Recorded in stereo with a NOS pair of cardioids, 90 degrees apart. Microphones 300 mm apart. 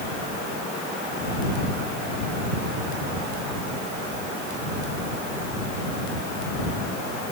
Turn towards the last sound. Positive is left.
No sound to turn to.